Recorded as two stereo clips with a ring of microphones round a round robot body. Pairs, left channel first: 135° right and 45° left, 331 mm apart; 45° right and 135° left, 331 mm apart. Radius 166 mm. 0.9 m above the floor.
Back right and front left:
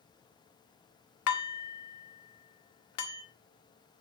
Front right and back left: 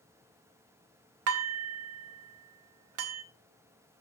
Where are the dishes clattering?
Straight behind, 1.0 m.